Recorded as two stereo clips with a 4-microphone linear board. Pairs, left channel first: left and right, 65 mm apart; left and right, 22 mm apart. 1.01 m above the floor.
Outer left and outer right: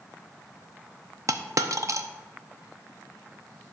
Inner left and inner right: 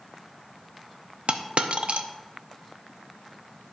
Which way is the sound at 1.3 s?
55° right (ahead or behind).